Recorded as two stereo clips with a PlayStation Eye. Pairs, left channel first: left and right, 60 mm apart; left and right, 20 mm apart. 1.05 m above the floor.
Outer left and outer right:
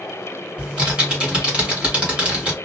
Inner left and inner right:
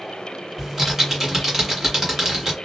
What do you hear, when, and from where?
0.6 s typing on a keyboard: 15° right (ahead or behind), 1.2 m